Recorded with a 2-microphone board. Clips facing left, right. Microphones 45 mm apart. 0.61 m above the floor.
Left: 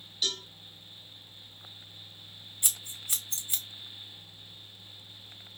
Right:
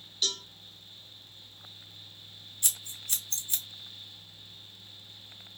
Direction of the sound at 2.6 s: 20° left (ahead or behind).